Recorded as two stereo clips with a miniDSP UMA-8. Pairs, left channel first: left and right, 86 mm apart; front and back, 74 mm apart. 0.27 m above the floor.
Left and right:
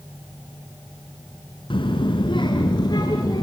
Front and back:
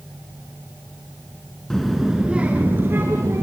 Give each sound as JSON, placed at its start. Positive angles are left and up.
{"t": 1.7, "sound": "a child speaking", "azimuth_deg": 85, "distance_m": 1.6}